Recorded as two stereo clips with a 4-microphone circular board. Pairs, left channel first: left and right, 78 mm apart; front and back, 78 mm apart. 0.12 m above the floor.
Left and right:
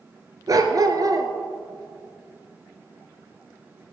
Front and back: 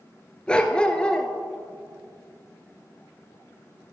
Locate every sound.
0.5 s a dog barking: 75° right, 0.8 m